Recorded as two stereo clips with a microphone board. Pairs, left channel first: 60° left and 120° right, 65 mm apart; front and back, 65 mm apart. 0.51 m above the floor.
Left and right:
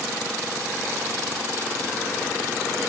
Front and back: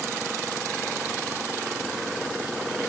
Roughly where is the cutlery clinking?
No cutlery clinking in this recording.